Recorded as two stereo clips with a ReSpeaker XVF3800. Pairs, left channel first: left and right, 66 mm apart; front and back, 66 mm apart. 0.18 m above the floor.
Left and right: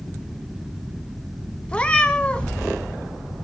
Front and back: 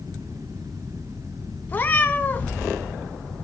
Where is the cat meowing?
30° left, 0.6 m.